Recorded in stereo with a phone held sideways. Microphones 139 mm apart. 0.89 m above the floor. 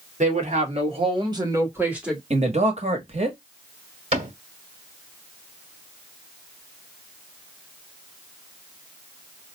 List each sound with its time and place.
0.2 s a woman speaking: 60° right (ahead or behind), 2.0 m; by 2.2 s centre (ahead or behind), 1.7 m
2.3 s a man speaking: 50° right (ahead or behind), 1.2 m
4.1 s a cupboard door: 50° right (ahead or behind), 2.5 m